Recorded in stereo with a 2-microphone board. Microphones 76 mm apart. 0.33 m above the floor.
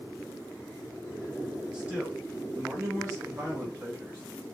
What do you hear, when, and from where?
1.7 s a man speaking: 10° right (ahead or behind), 1.9 m; by 4.2 s 30° right (ahead or behind), 2.5 m